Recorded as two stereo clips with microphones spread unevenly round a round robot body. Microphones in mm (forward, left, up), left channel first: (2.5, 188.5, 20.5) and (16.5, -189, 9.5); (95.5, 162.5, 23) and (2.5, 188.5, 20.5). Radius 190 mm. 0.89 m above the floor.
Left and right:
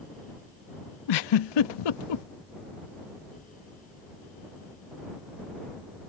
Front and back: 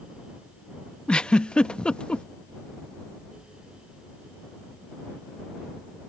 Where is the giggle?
65° left.